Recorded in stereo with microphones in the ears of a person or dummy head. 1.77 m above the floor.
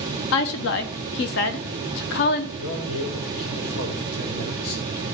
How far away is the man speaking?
About 3.5 m.